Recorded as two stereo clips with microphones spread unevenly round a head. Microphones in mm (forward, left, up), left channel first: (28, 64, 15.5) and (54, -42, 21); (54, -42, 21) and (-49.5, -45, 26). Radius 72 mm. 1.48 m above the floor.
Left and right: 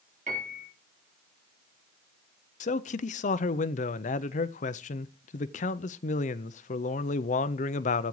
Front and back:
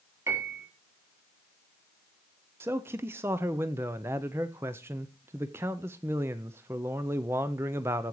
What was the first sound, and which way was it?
A piano, 115° right.